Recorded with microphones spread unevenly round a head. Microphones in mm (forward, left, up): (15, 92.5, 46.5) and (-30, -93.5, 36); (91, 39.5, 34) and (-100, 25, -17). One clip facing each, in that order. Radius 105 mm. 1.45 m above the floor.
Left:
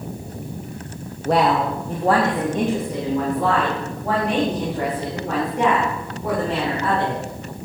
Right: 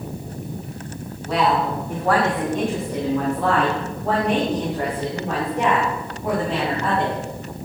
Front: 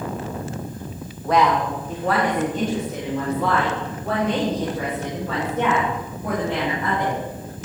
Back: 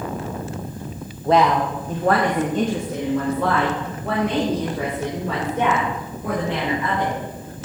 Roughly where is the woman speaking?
Behind left.